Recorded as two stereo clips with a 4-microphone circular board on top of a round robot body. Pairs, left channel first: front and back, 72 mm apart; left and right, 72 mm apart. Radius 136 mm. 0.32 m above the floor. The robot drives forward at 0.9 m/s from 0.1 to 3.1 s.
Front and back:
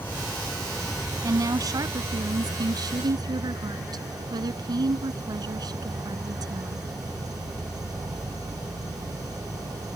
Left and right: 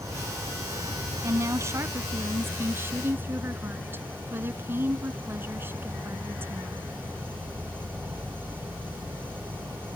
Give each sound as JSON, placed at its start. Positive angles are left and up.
{"t": 0.0, "sound": "an insect", "azimuth_deg": -55}
{"t": 1.2, "sound": "a woman speaking", "azimuth_deg": -140}